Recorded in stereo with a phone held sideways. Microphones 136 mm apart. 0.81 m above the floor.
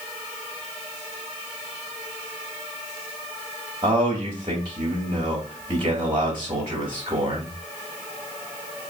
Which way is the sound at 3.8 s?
40° right (ahead or behind).